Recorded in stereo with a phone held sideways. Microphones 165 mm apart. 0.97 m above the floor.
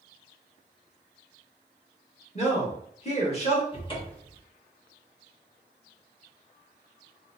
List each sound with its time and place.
2.4 s a man speaking: 40° left (ahead or behind), 1.5 m
3.7 s a cupboard door: 30° left (ahead or behind), 1.2 m